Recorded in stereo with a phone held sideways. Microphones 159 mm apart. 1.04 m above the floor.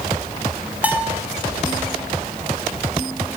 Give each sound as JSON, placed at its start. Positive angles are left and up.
{"t": 0.8, "sound": "a bell", "side_deg": -10, "distance_m": 4.0}